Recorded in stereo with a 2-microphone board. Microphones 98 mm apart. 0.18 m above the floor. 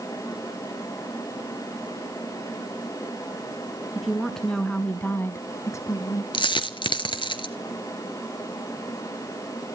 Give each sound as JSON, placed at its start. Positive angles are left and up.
{"t": 4.0, "sound": "a woman speaking", "side_deg": 0, "distance_m": 2.0}
{"t": 6.3, "sound": "a dropped coin", "side_deg": 55, "distance_m": 1.2}